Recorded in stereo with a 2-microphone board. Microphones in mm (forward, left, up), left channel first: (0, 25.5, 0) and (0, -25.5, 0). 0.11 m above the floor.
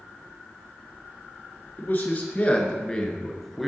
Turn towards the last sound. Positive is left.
turn(degrees=0)  # may be behind; listen again after turning